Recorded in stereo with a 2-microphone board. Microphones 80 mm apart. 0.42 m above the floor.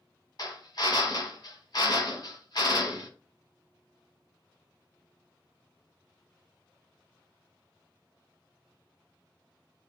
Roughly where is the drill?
Left.